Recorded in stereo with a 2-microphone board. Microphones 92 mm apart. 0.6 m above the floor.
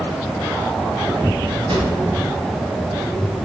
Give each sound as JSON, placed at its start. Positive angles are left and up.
{"t": 1.7, "sound": "a drawer", "side_deg": -60, "distance_m": 1.2}